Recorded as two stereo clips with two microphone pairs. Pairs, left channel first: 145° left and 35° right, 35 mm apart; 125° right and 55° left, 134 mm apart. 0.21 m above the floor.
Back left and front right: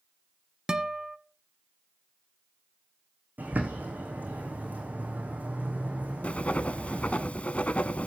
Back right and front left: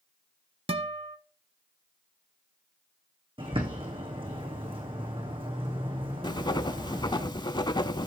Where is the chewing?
No chewing in this recording.